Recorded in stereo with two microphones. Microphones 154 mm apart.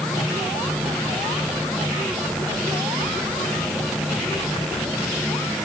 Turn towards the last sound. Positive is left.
No sound to turn to.